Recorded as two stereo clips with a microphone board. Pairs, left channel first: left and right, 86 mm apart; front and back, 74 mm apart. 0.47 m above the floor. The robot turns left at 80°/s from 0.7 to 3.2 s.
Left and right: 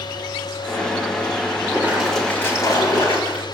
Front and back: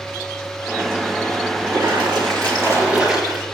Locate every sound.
1.7 s a splash: 145° right, 4.5 m; by 3.5 s 90° left, 4.5 m